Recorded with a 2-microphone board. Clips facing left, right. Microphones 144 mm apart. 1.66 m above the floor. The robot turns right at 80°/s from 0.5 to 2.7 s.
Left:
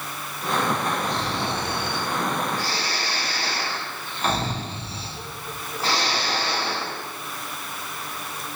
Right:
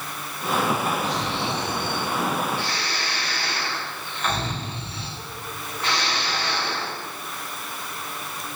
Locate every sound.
1.0 s snoring: 15° left, 3.5 m; by 7.0 s 145° left, 3.5 m